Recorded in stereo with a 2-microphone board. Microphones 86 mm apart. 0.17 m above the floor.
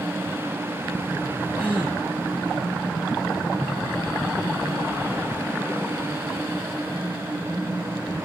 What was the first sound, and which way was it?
A gasp, 15° right (ahead or behind).